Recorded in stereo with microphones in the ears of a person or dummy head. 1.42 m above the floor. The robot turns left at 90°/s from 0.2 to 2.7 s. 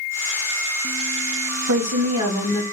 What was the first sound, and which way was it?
A woman speaking, 105° right.